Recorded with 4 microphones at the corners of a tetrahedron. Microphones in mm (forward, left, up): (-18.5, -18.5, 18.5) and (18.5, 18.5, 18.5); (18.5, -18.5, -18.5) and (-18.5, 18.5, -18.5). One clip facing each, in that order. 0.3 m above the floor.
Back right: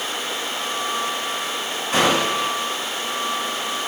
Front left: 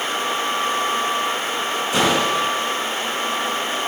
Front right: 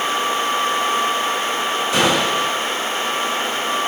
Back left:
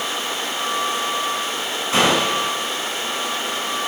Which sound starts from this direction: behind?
A gunshot, at 1.9 s.